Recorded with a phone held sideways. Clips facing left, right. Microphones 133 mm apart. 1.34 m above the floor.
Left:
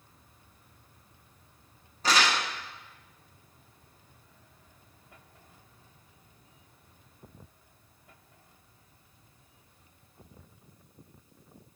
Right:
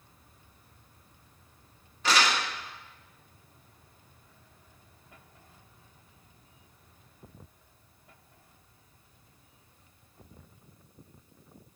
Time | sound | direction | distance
2.0 | crumpling | 35° left (ahead or behind) | 1.6 m